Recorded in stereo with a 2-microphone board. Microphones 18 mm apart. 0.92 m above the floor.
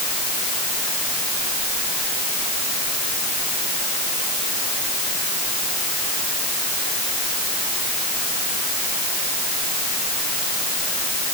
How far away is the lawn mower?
I don't hear a lawn mower.